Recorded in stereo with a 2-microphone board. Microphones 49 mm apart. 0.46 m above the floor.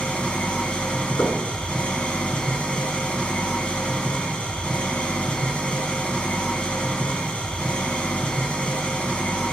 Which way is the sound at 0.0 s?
20° left (ahead or behind).